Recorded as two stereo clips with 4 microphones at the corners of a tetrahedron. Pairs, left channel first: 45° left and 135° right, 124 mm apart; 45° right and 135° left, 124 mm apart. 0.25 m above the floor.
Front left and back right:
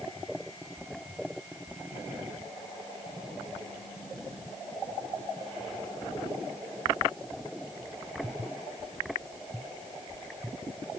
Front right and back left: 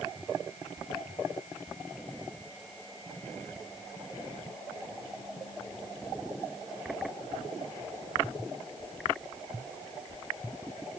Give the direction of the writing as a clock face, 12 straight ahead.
No writing in this recording.